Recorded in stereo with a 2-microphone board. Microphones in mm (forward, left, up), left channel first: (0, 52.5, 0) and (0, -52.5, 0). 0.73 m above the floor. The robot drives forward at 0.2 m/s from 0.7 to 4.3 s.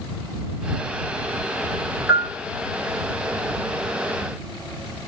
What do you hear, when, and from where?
2.1 s a bell: 10° right (ahead or behind), 0.9 m